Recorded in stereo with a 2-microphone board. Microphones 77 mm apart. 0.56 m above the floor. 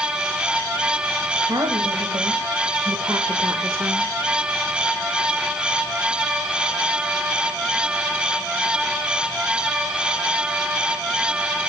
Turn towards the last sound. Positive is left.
turn(degrees=-25)  # may be behind; listen again after turning